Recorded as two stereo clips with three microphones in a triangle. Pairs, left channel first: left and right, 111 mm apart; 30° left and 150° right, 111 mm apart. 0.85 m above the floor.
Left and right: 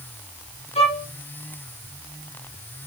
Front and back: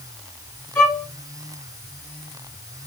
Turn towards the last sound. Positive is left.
turn(degrees=95)